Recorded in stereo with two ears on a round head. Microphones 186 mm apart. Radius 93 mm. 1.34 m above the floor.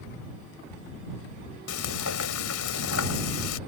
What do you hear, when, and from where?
1.7 s frying: 85° left